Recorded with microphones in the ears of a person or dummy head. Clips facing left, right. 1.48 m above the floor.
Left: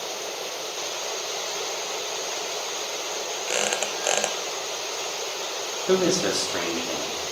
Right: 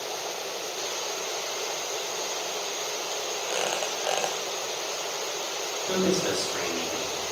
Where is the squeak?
30° left (ahead or behind), 0.5 m.